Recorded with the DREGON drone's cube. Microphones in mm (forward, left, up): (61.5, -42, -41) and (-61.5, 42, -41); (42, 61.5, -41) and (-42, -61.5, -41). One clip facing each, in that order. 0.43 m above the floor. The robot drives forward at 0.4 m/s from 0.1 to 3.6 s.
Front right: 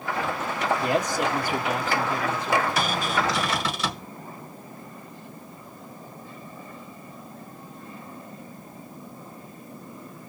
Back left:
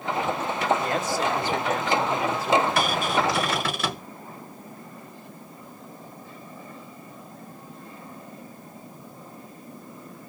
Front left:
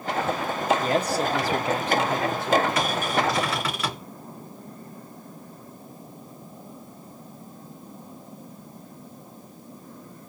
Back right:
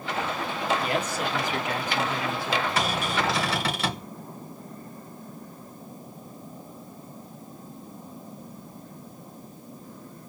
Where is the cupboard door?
175° left, 4 m.